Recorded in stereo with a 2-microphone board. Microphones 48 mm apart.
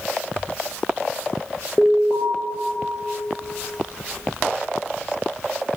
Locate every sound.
1.8 s an alarm: 15° left (ahead or behind), 5 m